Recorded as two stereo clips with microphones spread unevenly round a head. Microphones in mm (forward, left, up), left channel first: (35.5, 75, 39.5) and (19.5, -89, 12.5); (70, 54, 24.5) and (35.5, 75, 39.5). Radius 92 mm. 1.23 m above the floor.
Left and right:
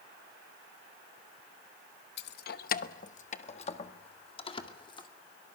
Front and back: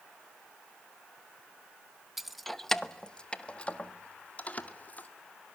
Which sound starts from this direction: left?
Keys jangling, at 2.2 s.